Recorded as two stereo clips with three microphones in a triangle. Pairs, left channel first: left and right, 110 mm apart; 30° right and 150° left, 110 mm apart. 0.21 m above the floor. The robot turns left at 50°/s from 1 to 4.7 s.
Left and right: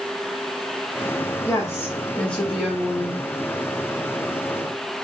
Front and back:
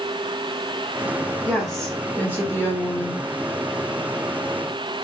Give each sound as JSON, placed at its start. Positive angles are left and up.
{"t": 1.4, "sound": "a woman speaking", "azimuth_deg": 65, "distance_m": 1.0}